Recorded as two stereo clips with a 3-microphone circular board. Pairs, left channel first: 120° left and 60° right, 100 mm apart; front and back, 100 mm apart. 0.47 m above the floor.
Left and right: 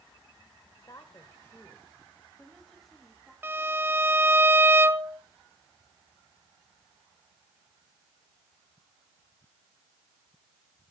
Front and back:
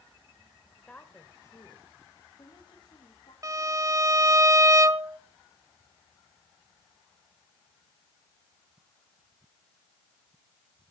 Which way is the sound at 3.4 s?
125° right.